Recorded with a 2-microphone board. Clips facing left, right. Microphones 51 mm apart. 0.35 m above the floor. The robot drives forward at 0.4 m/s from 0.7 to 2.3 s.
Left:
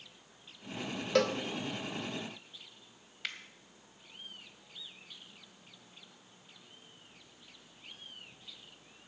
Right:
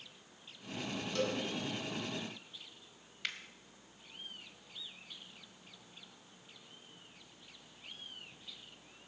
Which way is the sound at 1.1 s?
85° left.